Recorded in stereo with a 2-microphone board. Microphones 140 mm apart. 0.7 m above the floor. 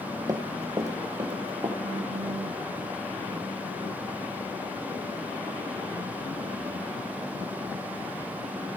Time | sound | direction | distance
0.3 | running footsteps | 25° right (ahead or behind) | 1.1 m
1.8 | a phone buzzing | 45° left (ahead or behind) | 8 m